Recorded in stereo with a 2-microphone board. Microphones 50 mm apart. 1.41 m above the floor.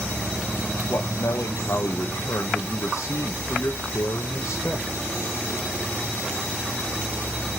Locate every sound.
0.9 s a man speaking: 75° left (ahead or behind), 1.0 m